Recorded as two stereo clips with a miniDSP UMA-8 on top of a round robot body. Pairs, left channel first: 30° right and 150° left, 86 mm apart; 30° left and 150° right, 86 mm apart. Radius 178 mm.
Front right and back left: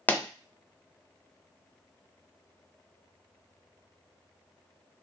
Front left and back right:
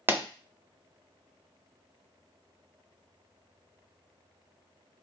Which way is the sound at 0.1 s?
90° right.